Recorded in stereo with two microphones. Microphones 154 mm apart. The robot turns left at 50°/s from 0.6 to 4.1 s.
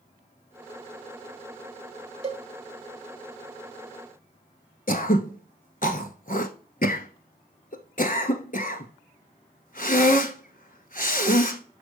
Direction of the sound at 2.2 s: 45° right (ahead or behind).